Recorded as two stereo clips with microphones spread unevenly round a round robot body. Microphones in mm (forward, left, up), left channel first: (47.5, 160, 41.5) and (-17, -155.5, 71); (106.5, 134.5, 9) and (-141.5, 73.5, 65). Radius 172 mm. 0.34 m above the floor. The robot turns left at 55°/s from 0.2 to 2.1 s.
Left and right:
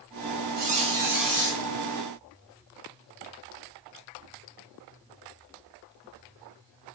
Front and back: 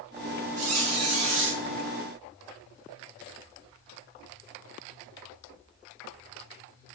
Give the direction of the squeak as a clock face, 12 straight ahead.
5 o'clock.